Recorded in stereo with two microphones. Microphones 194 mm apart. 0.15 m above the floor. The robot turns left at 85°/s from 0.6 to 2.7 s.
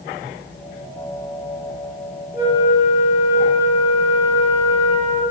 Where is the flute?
15° right, 2.5 m; by 5.2 s 45° right, 2.5 m.